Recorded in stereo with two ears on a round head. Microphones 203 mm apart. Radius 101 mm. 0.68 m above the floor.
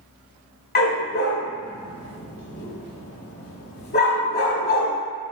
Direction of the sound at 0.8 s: 45° left (ahead or behind).